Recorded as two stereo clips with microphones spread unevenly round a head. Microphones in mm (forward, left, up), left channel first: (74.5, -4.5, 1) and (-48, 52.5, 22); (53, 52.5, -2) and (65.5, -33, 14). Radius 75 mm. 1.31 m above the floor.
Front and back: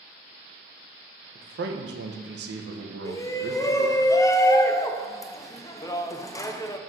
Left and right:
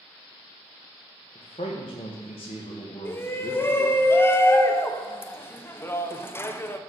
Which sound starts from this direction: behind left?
A man speaking, at 1.4 s.